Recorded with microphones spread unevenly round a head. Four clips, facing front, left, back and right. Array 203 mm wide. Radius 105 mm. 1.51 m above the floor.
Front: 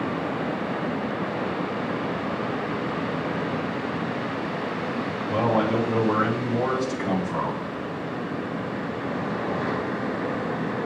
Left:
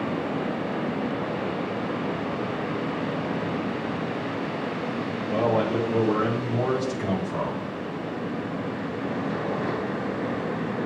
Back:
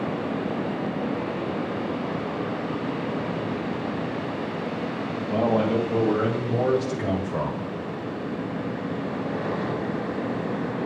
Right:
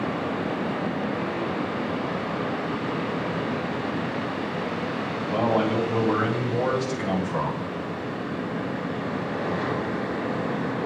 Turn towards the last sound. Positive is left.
turn(degrees=-170)